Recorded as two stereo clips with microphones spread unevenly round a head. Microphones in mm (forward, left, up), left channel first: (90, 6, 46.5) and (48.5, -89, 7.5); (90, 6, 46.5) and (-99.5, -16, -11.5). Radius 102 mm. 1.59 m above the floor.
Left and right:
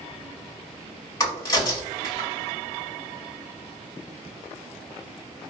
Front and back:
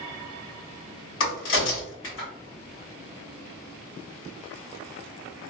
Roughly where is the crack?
Ahead.